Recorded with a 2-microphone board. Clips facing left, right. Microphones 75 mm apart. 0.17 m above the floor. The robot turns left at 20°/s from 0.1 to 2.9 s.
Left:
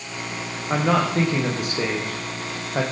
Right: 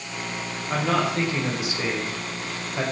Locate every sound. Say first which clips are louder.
0.7 s a man speaking: left 3 dB; 150° left, 6.5 m; by 2.8 s 110° left, 6.5 m